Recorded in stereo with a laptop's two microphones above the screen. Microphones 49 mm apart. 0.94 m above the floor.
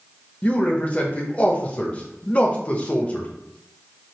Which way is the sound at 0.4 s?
25° left (ahead or behind).